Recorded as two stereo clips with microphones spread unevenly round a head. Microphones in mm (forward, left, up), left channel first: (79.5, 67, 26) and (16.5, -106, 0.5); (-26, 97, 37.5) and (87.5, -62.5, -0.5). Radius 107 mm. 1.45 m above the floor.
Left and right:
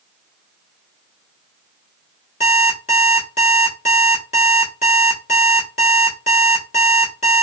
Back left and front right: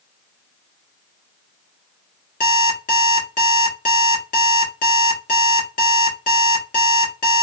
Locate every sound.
2.4 s an alarm clock: 110° left, 1.3 m